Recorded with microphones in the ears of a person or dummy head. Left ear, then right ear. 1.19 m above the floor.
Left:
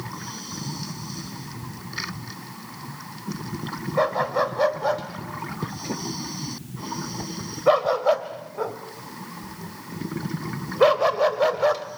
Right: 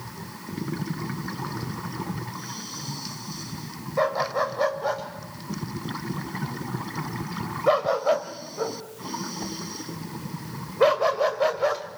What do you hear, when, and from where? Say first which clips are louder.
4.0 s a dog barking: left 2 dB; 15° left (ahead or behind), 2.0 m